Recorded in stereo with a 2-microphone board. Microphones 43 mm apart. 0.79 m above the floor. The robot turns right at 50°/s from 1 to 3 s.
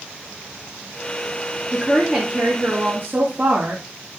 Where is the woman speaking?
Straight behind, 1.9 m; by 3.8 s 115° right, 1.9 m.